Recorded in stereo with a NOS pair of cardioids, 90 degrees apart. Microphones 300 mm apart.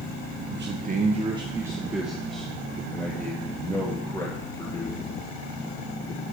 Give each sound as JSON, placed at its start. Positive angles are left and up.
{"t": 0.5, "sound": "a man speaking", "azimuth_deg": -40, "distance_m": 1.3}